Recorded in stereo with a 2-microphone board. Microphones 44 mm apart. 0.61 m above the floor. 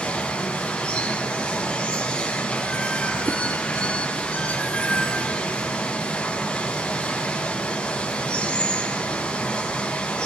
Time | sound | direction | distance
0.0 | running water | 25° left (ahead or behind) | 3.5 m
3.3 | a whoosh | 75° right (ahead or behind) | 0.9 m